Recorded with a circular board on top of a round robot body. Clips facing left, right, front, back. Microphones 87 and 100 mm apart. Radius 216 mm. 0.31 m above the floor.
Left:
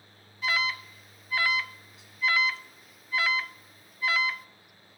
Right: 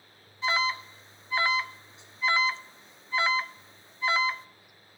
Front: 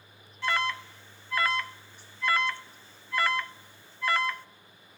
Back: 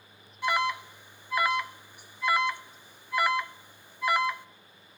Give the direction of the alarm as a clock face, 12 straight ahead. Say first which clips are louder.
Right 2 dB, back 2 dB; 4 o'clock.